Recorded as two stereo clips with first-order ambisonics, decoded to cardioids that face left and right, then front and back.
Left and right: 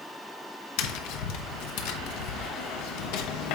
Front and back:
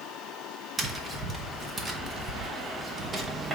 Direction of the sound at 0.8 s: 110° left.